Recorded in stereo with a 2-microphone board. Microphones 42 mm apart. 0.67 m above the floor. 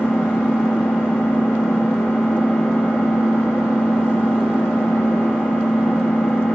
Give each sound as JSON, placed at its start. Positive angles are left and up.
{"t": 0.0, "sound": "an engine running", "side_deg": 75, "distance_m": 3.5}